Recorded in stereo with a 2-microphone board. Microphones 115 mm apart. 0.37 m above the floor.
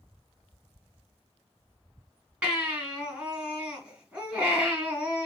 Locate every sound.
2.4 s a baby crying: 10° right (ahead or behind), 2.5 m